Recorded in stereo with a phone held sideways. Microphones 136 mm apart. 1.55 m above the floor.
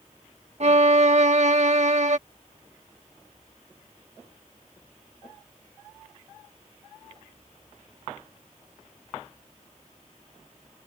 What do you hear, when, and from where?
0.6 s a violin: 55° right (ahead or behind)